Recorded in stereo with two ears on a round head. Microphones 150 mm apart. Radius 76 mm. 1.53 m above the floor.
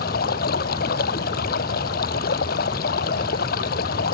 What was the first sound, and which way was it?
Running water, 65° left (ahead or behind).